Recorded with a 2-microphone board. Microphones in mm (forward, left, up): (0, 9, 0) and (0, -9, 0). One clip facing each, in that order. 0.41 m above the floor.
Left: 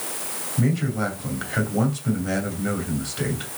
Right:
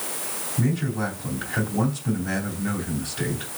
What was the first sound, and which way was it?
A man speaking, 25° left (ahead or behind).